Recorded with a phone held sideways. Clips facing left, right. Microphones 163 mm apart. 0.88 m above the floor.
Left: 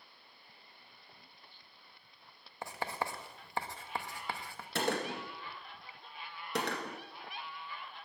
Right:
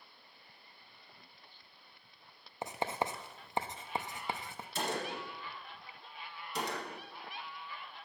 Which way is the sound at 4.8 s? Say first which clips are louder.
Left 3 dB; 70° left (ahead or behind).